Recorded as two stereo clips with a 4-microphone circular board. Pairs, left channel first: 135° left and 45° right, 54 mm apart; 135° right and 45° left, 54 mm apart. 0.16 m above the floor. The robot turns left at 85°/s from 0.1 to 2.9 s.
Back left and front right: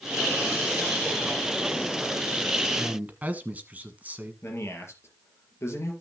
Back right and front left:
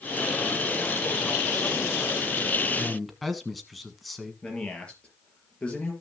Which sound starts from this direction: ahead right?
A man speaking, at 2.8 s.